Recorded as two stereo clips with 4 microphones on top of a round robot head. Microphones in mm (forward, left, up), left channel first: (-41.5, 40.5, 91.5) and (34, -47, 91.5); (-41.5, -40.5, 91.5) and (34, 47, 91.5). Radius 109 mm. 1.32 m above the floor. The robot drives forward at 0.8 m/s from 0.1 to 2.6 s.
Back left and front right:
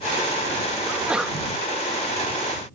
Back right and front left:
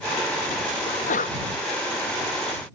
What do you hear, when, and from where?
0.9 s a sneeze: 125° right; by 1.4 s 135° right